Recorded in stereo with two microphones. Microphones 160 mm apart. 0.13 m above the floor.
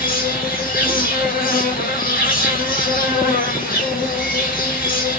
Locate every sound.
0.0 s an insect: 60° left (ahead or behind), 1.3 m